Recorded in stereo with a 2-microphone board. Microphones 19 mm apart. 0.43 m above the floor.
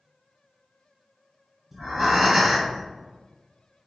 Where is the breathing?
20° right (ahead or behind), 1.3 m.